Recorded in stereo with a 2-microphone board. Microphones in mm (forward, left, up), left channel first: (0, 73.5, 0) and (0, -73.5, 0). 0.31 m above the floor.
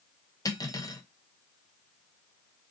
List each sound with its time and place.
0.5 s cutlery clinking: 25° left (ahead or behind), 0.6 m